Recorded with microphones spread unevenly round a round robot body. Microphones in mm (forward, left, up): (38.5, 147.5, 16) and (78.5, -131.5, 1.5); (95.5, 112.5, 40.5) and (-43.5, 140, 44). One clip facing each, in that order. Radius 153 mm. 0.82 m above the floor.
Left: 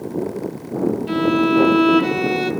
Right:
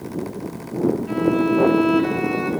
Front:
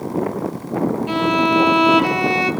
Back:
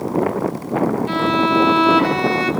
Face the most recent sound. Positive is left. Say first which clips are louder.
# left 4 dB, even
turn(degrees=65)